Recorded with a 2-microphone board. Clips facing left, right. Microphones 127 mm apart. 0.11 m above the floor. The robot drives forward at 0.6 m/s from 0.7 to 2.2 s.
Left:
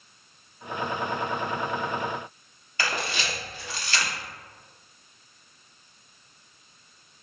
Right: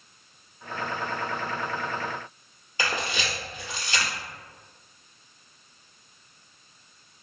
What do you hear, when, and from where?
2.8 s a camera shutter: 20° right (ahead or behind), 1.5 m